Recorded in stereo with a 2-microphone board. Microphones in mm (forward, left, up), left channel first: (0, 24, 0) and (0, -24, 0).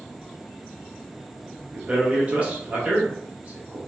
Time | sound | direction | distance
1.7 | a man speaking | 30° right (ahead or behind) | 0.7 m